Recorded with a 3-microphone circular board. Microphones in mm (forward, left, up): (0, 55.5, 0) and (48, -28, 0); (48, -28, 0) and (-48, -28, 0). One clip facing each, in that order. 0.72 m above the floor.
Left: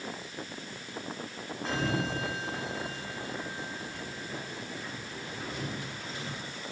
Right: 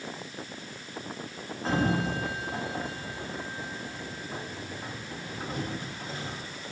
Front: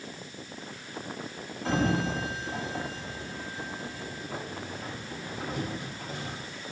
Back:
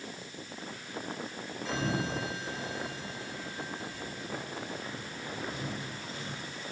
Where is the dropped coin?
I don't hear a dropped coin.